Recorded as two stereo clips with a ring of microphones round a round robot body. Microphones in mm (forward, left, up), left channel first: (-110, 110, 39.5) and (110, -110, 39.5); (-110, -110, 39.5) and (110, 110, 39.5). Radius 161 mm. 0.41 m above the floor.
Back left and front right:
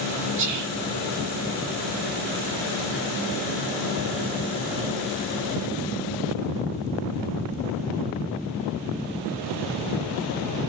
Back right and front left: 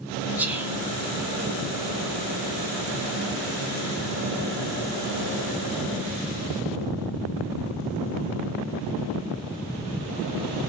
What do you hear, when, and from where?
0.4 s whispering: 40° right, 1.3 m